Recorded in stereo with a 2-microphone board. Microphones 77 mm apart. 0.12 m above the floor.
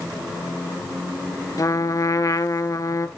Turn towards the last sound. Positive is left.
turn(degrees=50)  # may be behind; listen again after turning